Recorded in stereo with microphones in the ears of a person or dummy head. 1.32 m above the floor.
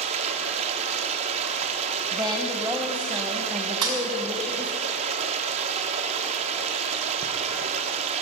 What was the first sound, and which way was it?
Running water, 35° right (ahead or behind).